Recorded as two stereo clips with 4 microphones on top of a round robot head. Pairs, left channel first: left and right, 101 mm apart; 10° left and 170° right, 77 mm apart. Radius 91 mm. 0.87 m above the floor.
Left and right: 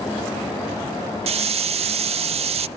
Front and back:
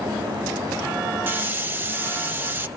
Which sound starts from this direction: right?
A hiss, at 1.3 s.